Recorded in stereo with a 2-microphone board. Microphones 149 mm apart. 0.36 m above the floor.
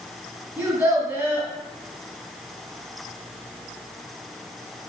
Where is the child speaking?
15° right (ahead or behind), 1.9 m.